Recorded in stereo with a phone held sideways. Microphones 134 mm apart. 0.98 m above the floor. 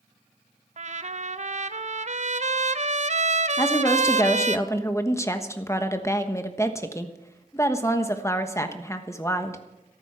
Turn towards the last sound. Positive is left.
turn(degrees=20)  # may be behind; listen again after turning